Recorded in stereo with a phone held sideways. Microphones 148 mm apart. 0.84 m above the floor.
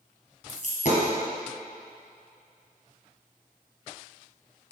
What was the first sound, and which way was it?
A dropped coin, 50° left (ahead or behind).